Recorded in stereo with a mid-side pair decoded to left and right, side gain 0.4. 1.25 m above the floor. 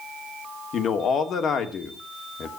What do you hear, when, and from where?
0.7 s a man speaking: 65° left, 2.5 m